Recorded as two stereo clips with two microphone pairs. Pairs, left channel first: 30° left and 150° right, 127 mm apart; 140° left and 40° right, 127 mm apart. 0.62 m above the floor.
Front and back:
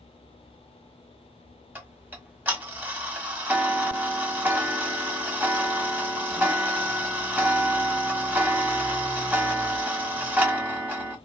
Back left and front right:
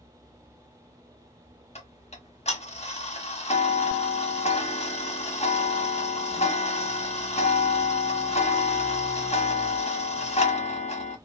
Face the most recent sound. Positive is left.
turn(degrees=135)